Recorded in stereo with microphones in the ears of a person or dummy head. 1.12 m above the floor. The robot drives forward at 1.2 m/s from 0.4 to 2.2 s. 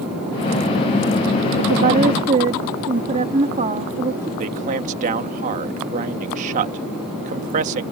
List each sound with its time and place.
1.6 s a woman speaking: 55° right (ahead or behind); by 4.3 s 30° right (ahead or behind)
4.4 s a man speaking: 40° right (ahead or behind)